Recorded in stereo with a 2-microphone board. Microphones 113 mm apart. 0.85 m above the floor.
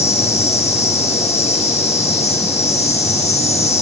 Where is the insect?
70° left (ahead or behind), 7.5 m.